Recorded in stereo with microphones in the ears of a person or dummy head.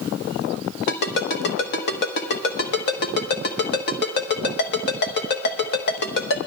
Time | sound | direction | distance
0.9 | a ringtone | 55° left (ahead or behind) | 1.1 m